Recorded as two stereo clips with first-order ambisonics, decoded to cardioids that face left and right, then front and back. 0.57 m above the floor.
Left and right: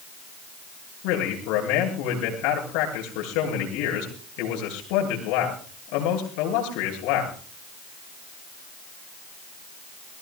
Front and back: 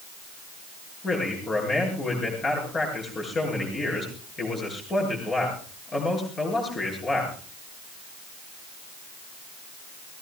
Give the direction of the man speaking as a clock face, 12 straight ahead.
10 o'clock.